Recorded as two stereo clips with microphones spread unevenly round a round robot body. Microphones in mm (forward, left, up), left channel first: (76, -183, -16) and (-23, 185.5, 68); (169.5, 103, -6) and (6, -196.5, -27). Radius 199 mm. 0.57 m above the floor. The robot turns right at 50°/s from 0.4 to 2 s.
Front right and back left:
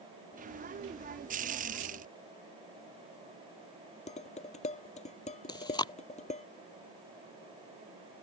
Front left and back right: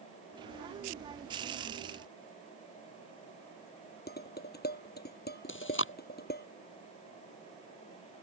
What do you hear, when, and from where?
4.1 s dishes clattering: straight ahead
5.5 s chewing: 5° left